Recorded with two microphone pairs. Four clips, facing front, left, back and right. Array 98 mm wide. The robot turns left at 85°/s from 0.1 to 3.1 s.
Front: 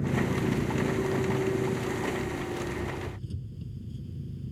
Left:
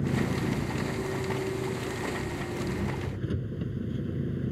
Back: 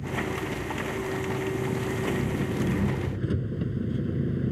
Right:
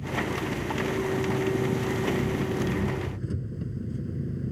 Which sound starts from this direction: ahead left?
An engine running, at 0.0 s.